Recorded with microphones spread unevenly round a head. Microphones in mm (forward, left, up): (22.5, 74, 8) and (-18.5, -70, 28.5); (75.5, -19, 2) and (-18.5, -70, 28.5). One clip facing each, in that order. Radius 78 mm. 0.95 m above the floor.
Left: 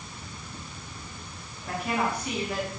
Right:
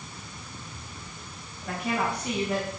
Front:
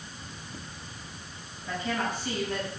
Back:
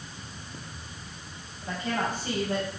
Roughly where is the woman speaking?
Right.